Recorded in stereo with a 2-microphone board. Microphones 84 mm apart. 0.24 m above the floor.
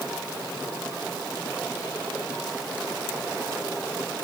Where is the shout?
No shout in this recording.